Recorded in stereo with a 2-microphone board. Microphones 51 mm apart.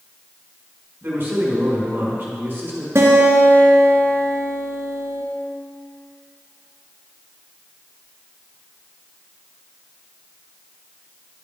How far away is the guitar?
About 1.1 m.